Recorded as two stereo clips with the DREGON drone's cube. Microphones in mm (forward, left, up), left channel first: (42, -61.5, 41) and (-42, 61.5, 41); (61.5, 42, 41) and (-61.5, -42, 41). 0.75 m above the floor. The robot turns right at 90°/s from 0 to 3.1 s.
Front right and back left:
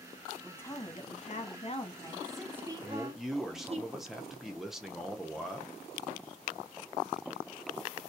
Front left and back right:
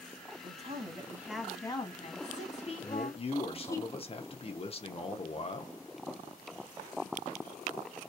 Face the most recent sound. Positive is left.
turn(degrees=40)